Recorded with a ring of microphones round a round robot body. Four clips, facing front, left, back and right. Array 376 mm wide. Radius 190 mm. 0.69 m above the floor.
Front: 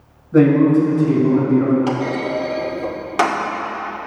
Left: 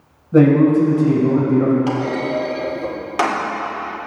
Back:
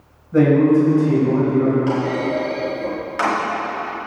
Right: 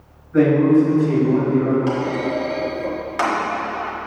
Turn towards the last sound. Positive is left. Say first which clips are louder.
# left 1 dB, back 1 dB
turn(degrees=30)